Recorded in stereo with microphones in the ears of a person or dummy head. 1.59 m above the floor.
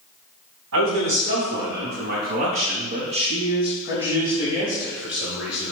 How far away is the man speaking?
About 2.5 m.